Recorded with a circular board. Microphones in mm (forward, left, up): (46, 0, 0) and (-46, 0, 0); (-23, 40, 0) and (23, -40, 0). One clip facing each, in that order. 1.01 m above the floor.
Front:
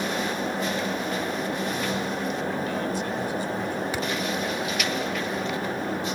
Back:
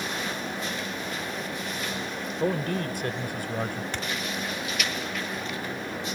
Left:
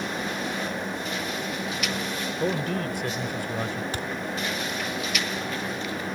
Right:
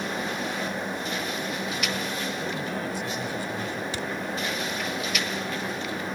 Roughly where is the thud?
Left.